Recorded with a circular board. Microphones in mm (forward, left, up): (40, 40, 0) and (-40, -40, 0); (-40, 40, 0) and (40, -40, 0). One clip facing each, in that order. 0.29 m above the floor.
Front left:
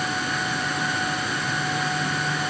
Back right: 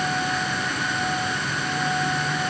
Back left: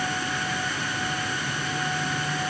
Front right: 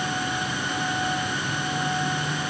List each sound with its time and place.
Only background noise.